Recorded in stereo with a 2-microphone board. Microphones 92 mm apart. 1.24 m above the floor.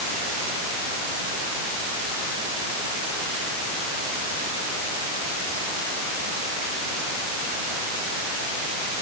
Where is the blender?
I don't hear a blender.